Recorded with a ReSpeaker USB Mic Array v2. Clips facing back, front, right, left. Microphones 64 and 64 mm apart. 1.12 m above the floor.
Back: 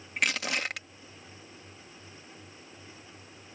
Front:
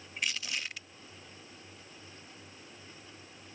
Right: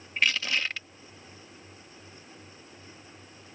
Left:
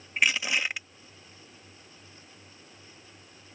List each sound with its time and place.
0.2 s crushing: 165° left